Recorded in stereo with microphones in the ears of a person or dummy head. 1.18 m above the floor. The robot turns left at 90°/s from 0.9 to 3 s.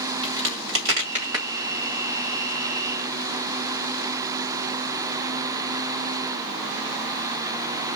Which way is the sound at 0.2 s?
60° right (ahead or behind).